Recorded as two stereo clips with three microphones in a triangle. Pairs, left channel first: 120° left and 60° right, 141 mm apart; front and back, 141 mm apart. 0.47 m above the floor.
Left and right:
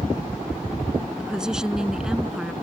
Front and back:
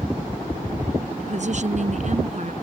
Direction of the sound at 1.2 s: 145° right.